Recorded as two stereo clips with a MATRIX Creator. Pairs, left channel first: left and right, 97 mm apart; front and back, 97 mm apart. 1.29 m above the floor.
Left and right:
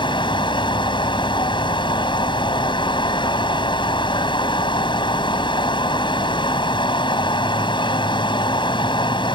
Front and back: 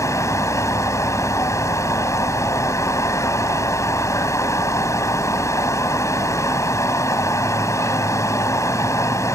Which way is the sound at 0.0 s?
55° left.